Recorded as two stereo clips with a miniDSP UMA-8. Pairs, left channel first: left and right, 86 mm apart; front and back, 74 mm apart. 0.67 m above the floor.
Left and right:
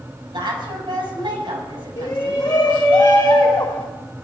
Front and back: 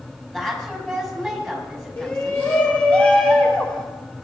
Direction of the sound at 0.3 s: 90° right.